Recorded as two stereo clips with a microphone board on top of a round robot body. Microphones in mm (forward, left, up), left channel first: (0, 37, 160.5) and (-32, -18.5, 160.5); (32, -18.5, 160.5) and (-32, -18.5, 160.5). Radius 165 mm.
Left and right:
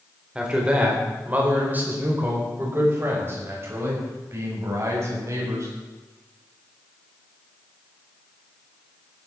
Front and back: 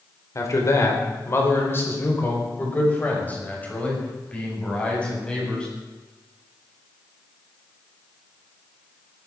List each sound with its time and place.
0.3 s a man speaking: 45° right, 4 m; by 5.7 s 80° right, 7.5 m